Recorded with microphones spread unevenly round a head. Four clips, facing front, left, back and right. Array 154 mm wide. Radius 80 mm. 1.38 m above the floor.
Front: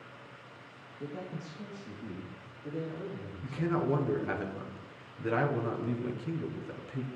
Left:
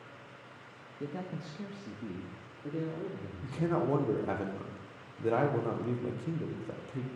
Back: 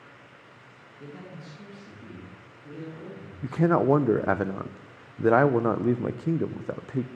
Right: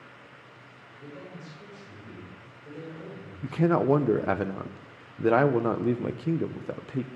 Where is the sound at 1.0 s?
75° left, 2.5 m; by 3.8 s 65° left, 4.5 m.